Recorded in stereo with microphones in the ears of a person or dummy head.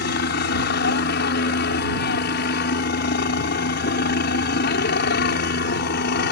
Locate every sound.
0.0 s a helicopter: 55° left (ahead or behind)